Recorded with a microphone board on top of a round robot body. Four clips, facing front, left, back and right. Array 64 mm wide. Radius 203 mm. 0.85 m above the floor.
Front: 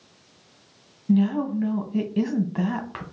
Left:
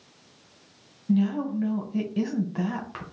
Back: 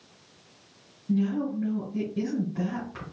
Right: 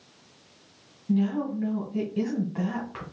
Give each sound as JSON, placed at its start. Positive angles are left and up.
{"t": 1.1, "sound": "a woman speaking", "azimuth_deg": 15, "distance_m": 1.6}